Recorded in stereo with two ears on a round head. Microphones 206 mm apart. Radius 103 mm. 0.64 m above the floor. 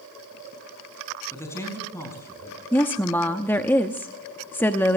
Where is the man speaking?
10° left (ahead or behind), 5.5 m.